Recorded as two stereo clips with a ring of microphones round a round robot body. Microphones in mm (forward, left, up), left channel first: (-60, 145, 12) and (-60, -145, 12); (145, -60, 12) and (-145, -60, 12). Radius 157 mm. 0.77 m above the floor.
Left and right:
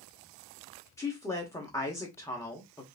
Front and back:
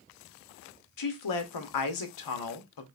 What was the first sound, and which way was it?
A woman speaking, 10° left.